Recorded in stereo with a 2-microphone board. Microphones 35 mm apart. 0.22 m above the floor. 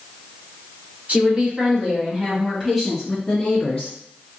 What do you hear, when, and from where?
1.1 s a woman speaking: 40° right (ahead or behind), 1.4 m; by 3.9 s 25° left (ahead or behind), 1.5 m